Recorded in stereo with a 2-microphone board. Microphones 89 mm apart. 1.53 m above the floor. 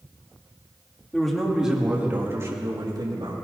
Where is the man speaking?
5° left (ahead or behind), 3 m; by 3.4 s 55° right (ahead or behind), 3 m.